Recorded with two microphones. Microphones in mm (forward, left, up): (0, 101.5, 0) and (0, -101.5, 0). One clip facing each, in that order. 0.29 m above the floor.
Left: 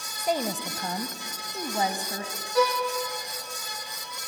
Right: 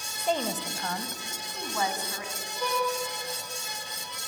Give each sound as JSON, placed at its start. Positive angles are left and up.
{"t": 0.2, "sound": "a woman speaking", "side_deg": 5, "distance_m": 1.2}
{"t": 2.5, "sound": "a violin", "side_deg": 80, "distance_m": 3.0}